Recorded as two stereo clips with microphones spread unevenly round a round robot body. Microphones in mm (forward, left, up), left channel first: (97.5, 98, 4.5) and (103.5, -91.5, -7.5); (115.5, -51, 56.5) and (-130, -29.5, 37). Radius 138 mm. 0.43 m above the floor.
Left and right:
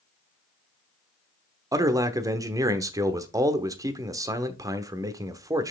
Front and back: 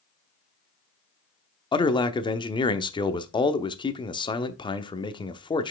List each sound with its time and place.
1.7 s a man speaking: 60° right, 0.9 m